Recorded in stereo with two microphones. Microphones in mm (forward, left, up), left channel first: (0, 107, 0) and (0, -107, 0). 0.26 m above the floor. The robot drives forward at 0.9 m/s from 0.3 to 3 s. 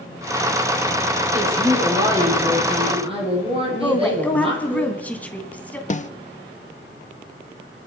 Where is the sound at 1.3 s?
30° right (ahead or behind), 8.5 m; by 4.8 s 25° right (ahead or behind), 10 m.